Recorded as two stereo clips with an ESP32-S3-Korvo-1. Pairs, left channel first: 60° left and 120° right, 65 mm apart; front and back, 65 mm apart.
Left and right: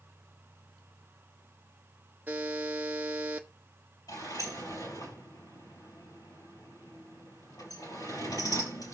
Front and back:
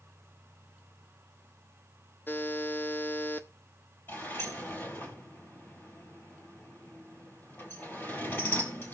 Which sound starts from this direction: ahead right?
A buzzer, at 2.3 s.